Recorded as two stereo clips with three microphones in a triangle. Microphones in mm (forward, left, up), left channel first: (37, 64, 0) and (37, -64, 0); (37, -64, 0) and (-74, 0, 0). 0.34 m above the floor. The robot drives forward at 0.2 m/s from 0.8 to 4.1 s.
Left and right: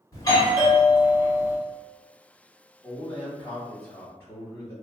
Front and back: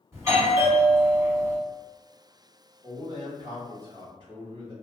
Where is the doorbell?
110° left, 1.7 m; by 1.6 s 115° left, 1.7 m.